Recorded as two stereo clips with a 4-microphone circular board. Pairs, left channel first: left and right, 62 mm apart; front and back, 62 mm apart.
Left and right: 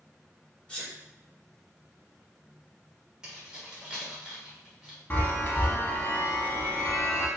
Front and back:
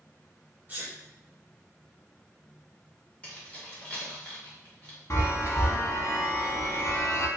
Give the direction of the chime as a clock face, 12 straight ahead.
11 o'clock.